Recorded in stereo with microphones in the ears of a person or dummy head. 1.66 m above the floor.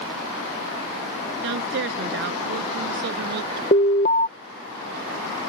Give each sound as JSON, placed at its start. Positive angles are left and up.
{"t": 1.4, "sound": "a woman speaking", "side_deg": -65}
{"t": 3.7, "sound": "an alarm", "side_deg": 40}